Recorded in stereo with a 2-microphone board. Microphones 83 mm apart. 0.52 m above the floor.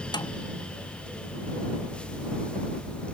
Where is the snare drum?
60° left (ahead or behind).